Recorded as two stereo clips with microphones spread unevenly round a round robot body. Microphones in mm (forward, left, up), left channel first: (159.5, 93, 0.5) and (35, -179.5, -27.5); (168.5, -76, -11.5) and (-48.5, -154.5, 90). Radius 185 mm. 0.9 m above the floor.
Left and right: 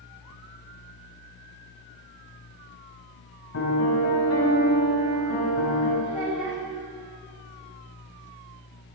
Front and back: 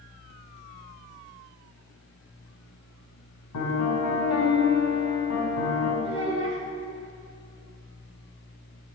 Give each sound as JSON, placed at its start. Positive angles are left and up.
{"t": 3.5, "sound": "a piano", "azimuth_deg": 25, "distance_m": 3.5}
{"t": 6.0, "sound": "a child speaking", "azimuth_deg": -120, "distance_m": 3.5}